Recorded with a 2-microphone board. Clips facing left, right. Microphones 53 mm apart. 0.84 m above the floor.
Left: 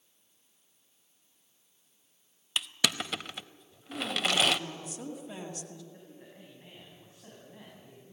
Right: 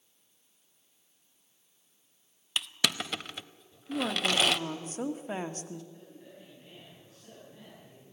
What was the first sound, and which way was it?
Crushing, centre (ahead or behind).